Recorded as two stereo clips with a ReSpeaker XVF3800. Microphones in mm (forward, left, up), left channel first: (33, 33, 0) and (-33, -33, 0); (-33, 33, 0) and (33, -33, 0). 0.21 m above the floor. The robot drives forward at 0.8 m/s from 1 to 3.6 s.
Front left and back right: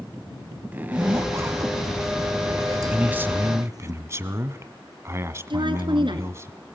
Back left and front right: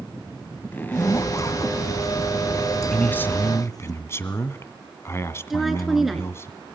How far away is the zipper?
About 0.5 m.